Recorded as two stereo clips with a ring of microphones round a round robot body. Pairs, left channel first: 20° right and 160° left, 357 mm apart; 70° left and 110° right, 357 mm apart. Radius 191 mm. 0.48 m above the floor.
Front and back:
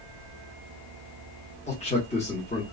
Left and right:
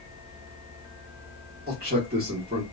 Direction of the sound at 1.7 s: 75° right.